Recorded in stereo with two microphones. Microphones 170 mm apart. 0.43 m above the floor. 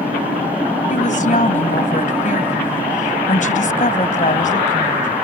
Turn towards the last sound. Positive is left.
turn(degrees=50)  # may be behind; listen again after turning